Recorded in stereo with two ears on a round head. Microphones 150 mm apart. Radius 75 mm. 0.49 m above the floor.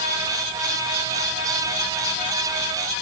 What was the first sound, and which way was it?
Only background noise.